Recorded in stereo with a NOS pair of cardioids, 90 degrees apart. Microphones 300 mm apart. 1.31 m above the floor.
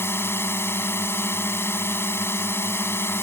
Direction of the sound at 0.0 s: 10° left.